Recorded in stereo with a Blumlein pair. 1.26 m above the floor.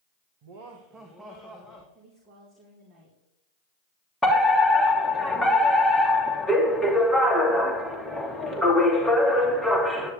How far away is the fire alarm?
About 2.5 m.